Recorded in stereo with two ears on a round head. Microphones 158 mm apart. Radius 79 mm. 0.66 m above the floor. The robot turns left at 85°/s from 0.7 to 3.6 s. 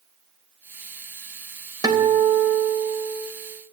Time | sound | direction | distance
1.8 | a guitar | 20° right | 3 m